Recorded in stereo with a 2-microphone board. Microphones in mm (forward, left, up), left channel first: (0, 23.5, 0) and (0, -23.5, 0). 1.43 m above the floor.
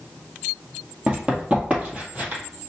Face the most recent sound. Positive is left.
turn(degrees=-35)  # may be behind; listen again after turning